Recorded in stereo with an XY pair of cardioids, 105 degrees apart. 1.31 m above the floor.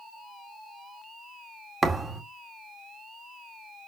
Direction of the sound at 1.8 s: 25° right.